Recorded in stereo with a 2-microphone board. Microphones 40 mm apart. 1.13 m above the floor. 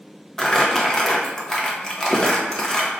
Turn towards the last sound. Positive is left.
turn(degrees=15)  # may be behind; listen again after turning